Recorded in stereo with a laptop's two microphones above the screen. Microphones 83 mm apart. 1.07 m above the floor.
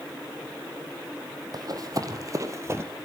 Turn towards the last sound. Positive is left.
turn(degrees=-30)  # may be behind; listen again after turning